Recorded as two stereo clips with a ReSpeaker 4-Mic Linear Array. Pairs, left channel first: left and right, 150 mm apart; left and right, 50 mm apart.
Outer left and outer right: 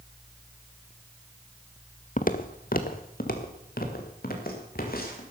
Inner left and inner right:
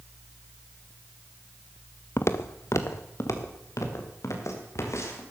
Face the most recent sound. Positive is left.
turn(degrees=85)